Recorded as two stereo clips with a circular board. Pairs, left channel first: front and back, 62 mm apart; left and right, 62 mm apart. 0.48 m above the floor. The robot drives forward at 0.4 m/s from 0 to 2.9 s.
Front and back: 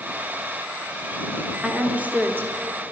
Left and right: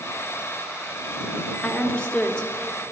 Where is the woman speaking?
130° left, 0.8 m; by 2.9 s 160° left, 1.1 m.